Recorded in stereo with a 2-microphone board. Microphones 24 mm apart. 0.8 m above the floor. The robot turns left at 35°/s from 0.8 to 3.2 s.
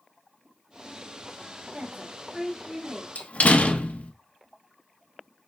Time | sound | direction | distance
1.7 | a woman speaking | 125° right | 1.7 m
3.1 | a door slam | 70° left (ahead or behind) | 0.8 m